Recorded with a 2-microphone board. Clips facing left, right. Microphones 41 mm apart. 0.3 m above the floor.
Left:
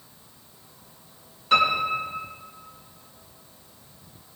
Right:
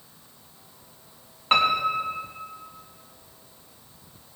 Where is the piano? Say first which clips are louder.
Even; 40° right (ahead or behind), 2.5 m.